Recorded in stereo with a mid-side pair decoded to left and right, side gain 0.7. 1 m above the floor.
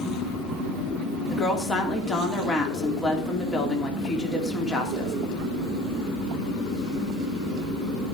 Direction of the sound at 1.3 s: 20° left.